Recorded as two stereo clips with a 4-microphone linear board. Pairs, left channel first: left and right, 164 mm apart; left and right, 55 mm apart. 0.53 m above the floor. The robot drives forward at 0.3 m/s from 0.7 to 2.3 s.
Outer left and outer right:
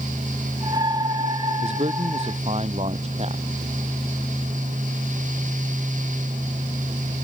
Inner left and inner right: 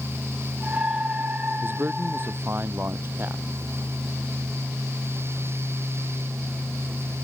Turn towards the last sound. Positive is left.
turn(degrees=-40)  # may be behind; listen again after turning